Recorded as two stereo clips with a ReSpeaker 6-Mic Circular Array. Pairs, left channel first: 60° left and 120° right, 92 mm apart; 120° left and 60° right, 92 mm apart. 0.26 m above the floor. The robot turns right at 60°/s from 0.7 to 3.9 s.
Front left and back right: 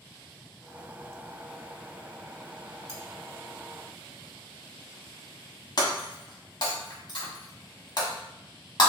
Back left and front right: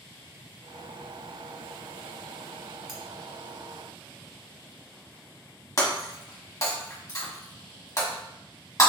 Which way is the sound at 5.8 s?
75° left.